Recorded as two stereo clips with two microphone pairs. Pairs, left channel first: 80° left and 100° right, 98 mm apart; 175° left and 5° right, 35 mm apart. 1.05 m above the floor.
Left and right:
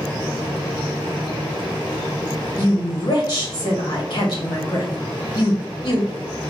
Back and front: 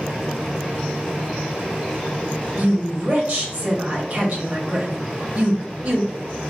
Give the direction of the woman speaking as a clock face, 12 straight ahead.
11 o'clock.